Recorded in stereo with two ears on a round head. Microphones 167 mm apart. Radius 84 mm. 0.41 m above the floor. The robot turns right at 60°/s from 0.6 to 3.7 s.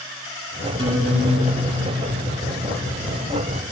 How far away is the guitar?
About 1.8 m.